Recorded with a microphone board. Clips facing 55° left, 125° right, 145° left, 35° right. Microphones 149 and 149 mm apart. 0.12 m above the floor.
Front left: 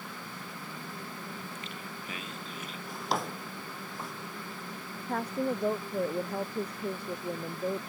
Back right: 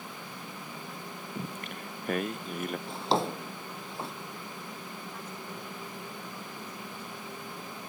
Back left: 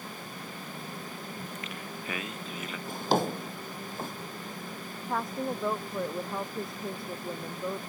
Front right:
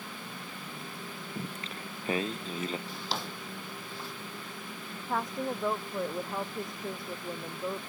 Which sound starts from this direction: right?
Singing, at 1.4 s.